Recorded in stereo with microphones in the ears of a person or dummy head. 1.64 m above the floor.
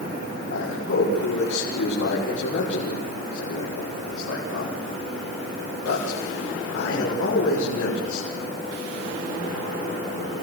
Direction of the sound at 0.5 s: 80° left.